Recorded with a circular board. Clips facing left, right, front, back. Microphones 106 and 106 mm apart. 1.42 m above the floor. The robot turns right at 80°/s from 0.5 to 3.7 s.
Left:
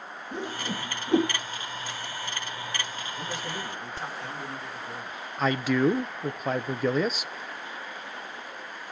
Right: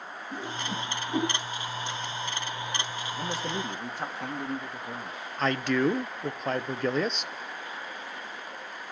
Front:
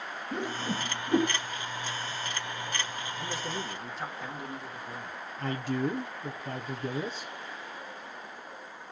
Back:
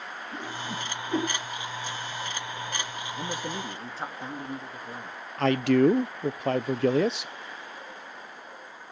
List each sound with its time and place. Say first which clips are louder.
0.3 s a whoosh: left 1 dB, front 3 dB; 20° left, 4 m; by 1.3 s 85° left, 4 m
3.2 s a man speaking: right 3 dB, back 3 dB; 165° right, 2.5 m; by 5.2 s 120° right, 2.5 m
5.4 s a man speaking: left 2 dB, back 10 dB; 175° left, 0.7 m